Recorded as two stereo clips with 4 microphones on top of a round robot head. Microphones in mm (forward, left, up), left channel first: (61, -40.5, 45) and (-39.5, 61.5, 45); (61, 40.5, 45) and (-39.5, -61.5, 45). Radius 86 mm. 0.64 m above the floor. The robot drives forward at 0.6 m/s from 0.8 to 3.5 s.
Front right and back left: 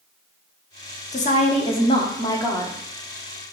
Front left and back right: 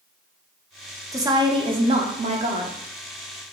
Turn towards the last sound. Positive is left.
turn(degrees=-135)